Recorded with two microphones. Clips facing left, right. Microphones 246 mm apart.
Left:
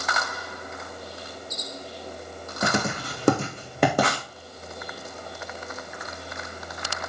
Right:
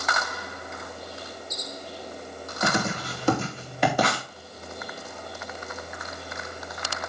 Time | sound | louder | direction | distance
2.6 | writing | left 1 dB | 55° left (ahead or behind) | 4.5 m